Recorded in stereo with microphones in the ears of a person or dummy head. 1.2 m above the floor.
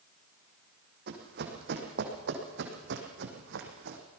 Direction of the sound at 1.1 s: 60° right (ahead or behind).